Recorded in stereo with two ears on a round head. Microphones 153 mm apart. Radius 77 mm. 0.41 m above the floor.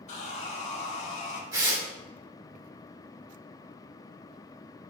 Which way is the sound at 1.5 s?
20° right (ahead or behind).